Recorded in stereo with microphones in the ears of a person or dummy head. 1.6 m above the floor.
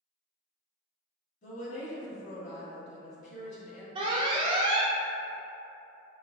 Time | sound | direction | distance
1.4 | a woman speaking | 45° left (ahead or behind) | 1.8 m
4.0 | an alarm | 30° right (ahead or behind) | 0.6 m